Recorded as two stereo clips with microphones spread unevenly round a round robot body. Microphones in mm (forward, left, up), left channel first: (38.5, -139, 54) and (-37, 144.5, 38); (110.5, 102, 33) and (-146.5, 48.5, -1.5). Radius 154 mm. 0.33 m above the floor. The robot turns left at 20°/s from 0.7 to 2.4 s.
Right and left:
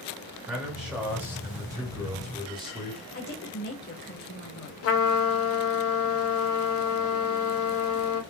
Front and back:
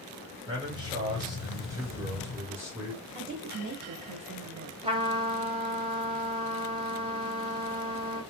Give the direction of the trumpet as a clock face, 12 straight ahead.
4 o'clock.